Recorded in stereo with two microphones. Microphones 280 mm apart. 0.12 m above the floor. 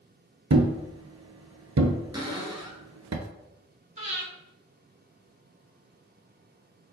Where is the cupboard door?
15° right (ahead or behind), 0.9 m.